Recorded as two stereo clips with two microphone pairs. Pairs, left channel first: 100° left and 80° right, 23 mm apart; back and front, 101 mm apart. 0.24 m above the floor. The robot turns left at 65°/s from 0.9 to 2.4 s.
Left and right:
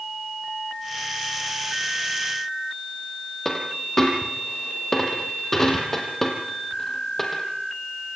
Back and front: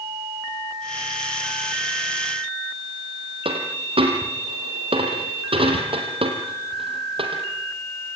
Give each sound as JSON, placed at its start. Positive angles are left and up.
{"t": 3.5, "sound": "a dropped coin", "azimuth_deg": 25, "distance_m": 3.5}